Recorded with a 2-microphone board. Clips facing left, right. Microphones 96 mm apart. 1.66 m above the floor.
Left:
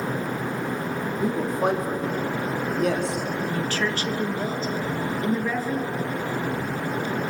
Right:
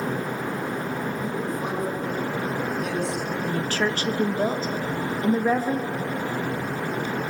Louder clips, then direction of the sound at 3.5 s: Right 3 dB; 40° right (ahead or behind).